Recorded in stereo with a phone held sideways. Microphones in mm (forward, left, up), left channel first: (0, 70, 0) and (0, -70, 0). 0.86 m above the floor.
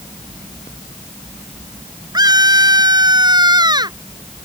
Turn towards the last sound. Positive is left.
turn(degrees=-30)  # may be behind; listen again after turning